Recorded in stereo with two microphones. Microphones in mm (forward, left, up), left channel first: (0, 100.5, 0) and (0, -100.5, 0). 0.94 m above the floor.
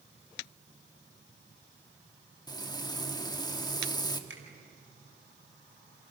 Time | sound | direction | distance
2.5 | frying | 20° left (ahead or behind) | 1.4 m
4.3 | a finger snap | 75° right (ahead or behind) | 4.5 m